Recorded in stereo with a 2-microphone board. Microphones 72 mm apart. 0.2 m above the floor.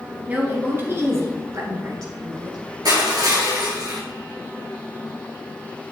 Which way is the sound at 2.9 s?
65° right (ahead or behind).